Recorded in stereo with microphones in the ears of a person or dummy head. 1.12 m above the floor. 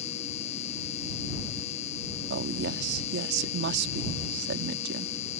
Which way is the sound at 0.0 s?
45° left (ahead or behind).